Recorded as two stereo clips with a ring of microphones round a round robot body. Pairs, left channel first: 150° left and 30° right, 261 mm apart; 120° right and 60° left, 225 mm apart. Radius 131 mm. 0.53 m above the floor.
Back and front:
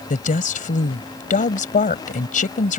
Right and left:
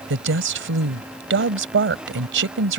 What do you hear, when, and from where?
0.1 s a woman speaking: 90° left